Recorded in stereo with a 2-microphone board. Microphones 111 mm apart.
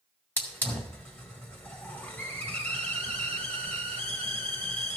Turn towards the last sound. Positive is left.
turn(degrees=15)  # may be behind; listen again after turning